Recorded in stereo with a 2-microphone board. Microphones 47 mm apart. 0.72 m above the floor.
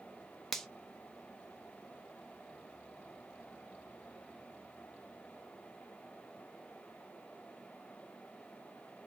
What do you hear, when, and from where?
0.5 s a finger snap: 5° left (ahead or behind), 0.6 m